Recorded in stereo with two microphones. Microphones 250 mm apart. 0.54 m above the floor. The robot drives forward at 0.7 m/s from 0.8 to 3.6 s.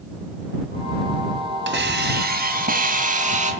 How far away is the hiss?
About 2 m.